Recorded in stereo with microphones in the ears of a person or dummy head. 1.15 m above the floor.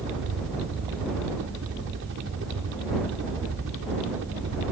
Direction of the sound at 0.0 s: 65° right (ahead or behind).